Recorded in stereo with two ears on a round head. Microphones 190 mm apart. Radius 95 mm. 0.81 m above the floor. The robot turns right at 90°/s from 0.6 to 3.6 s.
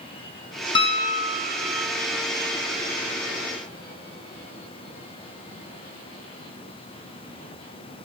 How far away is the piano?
About 1.0 m.